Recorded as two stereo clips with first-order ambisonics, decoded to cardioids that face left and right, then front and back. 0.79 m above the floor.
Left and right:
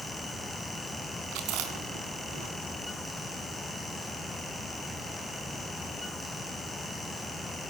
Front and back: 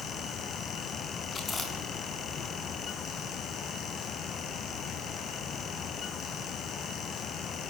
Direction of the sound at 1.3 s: 70° right.